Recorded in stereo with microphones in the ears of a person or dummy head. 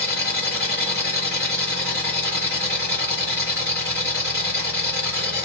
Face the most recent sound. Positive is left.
turn(degrees=-10)  # may be behind; listen again after turning